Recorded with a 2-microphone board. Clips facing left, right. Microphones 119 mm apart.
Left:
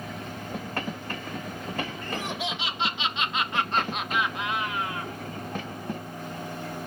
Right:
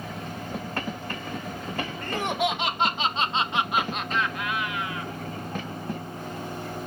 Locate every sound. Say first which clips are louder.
2.0 s laughter: right 6 dB; 65° right (ahead or behind), 1.4 m; by 5.1 s 45° left (ahead or behind), 1.1 m